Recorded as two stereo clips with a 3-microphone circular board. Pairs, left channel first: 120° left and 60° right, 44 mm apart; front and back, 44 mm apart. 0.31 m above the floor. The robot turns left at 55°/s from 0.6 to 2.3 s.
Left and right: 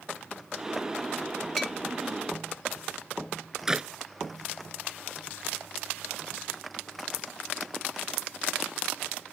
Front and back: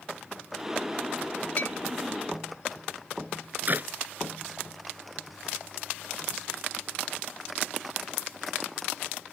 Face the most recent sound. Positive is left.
turn(degrees=-135)